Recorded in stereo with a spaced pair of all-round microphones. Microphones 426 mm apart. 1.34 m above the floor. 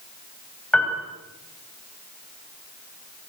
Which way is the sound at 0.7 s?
5° left (ahead or behind).